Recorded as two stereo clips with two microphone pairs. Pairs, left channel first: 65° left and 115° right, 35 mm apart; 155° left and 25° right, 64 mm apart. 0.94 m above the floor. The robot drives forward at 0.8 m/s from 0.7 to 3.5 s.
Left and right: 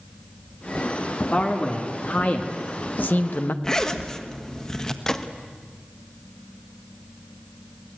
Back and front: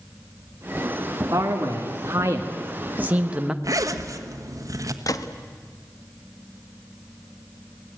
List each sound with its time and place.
1.3 s a man speaking: 15° left, 2.5 m; by 3.5 s 55° left, 0.9 m
3.6 s a zipper: 5° right, 1.4 m
5.1 s a gunshot: 140° left, 1.1 m